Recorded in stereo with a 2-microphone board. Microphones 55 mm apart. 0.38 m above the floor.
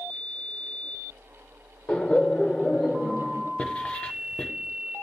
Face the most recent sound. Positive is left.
turn(degrees=20)  # may be behind; listen again after turning